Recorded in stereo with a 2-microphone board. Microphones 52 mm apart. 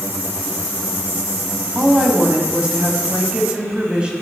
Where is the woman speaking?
20° right (ahead or behind), 1.1 m.